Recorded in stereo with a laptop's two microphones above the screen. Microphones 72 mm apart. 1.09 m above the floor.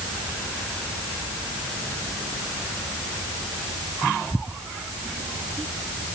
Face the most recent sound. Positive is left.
No sound to turn to.